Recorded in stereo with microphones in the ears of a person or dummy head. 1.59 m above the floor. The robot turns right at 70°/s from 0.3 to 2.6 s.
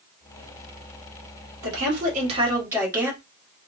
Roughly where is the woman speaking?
Right.